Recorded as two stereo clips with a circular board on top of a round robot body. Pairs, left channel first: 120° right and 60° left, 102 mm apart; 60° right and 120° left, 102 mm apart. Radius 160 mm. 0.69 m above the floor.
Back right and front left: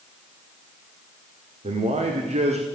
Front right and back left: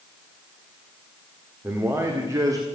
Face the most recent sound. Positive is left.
turn(degrees=65)